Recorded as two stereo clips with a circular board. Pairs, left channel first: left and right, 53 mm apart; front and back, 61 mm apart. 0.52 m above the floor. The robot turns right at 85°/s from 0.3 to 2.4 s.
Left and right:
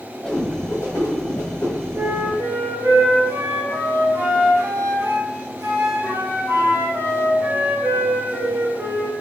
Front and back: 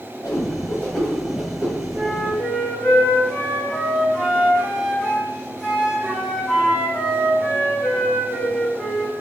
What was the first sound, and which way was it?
A whoosh, 15° left.